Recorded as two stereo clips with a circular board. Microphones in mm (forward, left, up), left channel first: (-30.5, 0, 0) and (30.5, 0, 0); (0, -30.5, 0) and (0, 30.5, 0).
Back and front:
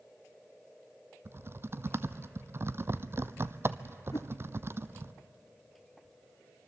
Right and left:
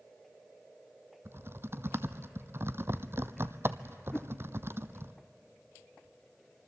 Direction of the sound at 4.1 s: 165° right.